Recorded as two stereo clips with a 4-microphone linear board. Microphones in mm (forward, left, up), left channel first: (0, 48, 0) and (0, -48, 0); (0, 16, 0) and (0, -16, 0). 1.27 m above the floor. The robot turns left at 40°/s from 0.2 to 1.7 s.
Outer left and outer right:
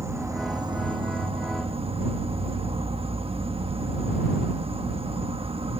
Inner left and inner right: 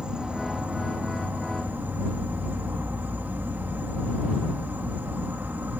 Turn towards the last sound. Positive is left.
turn(degrees=-90)